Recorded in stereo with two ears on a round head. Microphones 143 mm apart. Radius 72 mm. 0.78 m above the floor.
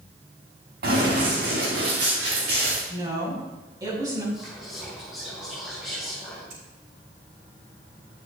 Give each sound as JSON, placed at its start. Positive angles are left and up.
{"t": 0.8, "sound": "running footsteps", "side_deg": -65, "distance_m": 4.5}
{"t": 2.9, "sound": "a woman speaking", "side_deg": -25, "distance_m": 5.0}
{"t": 4.3, "sound": "whispering", "side_deg": -5, "distance_m": 4.5}
{"t": 6.5, "sound": "scissors", "side_deg": -75, "distance_m": 3.5}